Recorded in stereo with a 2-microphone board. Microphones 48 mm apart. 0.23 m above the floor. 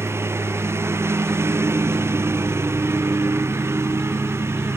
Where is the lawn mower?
65° right (ahead or behind).